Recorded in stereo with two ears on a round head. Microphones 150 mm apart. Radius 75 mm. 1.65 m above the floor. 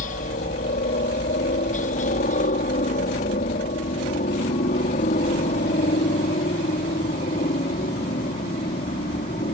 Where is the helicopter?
50° left (ahead or behind); by 9.5 s 40° left (ahead or behind).